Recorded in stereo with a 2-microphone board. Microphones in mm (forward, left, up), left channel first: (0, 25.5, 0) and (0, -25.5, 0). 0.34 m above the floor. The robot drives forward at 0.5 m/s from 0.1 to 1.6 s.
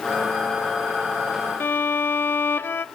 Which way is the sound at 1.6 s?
45° left (ahead or behind).